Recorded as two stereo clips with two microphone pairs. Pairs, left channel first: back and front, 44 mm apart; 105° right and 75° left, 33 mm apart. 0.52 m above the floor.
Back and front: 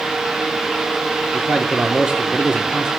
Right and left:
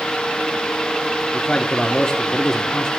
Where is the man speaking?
55° right, 1.1 m.